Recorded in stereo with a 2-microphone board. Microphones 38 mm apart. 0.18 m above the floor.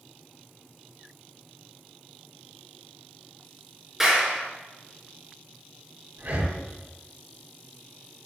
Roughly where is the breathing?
Right.